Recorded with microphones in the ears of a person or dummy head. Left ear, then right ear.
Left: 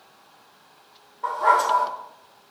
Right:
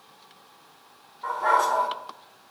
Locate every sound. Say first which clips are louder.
1.2 s a dog barking: left 3 dB; 5° left (ahead or behind), 1.4 m